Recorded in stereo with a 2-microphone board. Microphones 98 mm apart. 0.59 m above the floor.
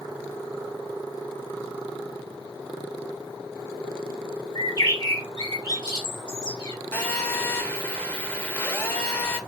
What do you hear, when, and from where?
4.5 s a bird: 45° left (ahead or behind), 2.5 m
6.9 s a phone buzzing: 20° left (ahead or behind), 1.1 m